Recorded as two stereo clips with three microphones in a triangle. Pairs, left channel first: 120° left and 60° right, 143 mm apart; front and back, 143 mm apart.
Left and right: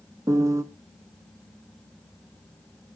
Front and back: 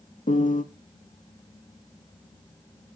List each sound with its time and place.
0.3 s a piano: 5° left, 0.6 m